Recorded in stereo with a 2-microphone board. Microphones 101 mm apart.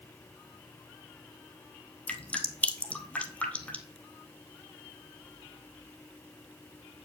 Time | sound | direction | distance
2.1 | dripping | 15° left (ahead or behind) | 0.7 m